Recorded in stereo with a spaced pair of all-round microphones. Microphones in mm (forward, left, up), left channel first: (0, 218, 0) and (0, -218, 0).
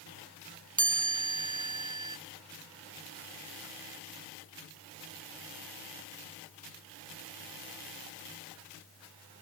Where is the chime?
40° right (ahead or behind).